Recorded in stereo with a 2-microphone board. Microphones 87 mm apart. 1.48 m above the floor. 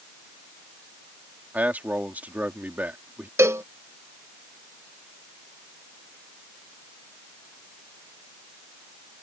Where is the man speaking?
20° right (ahead or behind).